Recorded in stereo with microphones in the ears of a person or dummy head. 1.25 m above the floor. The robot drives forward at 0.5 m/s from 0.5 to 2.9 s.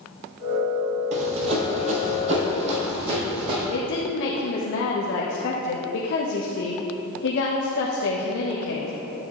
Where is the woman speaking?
75° left (ahead or behind), 1.0 m.